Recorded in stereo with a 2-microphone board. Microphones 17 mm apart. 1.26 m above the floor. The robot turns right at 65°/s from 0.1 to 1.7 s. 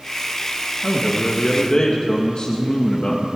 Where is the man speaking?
75° left, 1.3 m; by 3.3 s 130° left, 1.3 m.